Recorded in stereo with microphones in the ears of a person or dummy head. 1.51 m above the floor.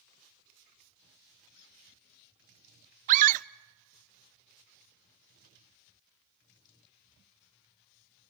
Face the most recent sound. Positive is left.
turn(degrees=-40)  # may be behind; listen again after turning